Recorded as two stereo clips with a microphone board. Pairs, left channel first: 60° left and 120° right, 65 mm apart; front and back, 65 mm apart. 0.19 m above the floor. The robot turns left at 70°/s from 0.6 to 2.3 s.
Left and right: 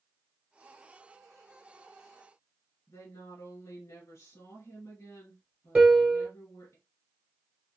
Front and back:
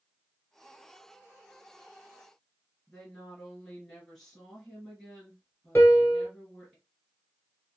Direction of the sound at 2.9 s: 90° left.